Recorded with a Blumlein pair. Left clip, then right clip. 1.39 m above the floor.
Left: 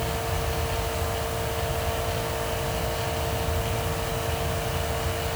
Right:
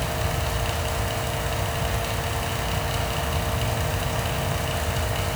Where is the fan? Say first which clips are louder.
Right 1 dB; 55° right, 8.5 m.